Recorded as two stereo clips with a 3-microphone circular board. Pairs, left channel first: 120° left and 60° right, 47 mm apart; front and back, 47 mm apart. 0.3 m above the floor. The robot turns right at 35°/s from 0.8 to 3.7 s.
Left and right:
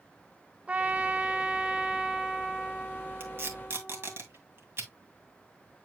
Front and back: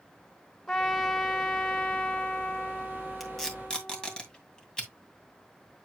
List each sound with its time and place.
0.7 s a trumpet: 75° right, 1.2 m; by 4.2 s 30° left, 1.2 m
3.2 s tape being pulled: 90° right, 2 m; by 4.9 s 70° right, 2 m